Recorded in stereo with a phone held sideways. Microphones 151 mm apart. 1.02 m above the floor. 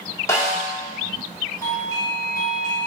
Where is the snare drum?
20° left (ahead or behind), 2 m.